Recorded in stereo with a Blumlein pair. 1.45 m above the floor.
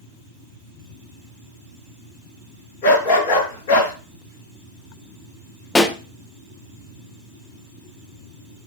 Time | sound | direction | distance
2.8 | a dog barking | 50° left | 5 m
5.8 | a pop | 10° left | 1.2 m